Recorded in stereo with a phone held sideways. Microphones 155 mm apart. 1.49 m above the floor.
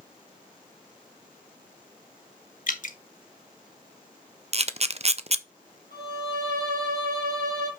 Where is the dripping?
60° left (ahead or behind), 1.1 m.